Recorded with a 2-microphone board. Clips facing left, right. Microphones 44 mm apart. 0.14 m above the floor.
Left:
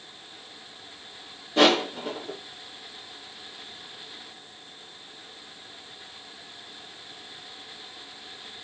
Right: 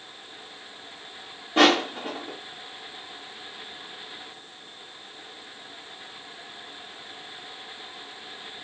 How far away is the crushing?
About 6.5 m.